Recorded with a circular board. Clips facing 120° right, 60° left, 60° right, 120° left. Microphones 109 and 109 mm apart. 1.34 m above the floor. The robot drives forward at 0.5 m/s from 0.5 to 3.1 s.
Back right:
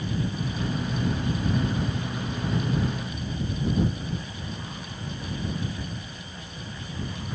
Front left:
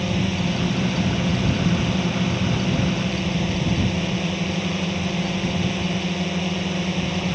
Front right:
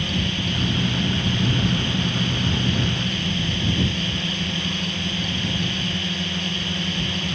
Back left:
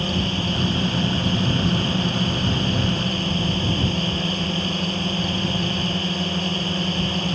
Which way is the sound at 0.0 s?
65° left.